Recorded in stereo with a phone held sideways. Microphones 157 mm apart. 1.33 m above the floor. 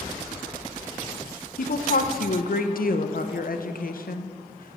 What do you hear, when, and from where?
1.6 s a woman speaking: 65° left (ahead or behind), 0.6 m